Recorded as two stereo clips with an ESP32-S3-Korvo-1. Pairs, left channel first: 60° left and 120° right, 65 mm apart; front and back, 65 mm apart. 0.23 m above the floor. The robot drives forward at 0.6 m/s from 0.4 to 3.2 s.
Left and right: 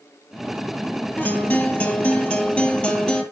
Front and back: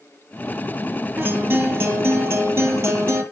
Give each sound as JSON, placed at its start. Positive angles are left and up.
{"t": 1.2, "sound": "a guitar", "azimuth_deg": 120, "distance_m": 3.5}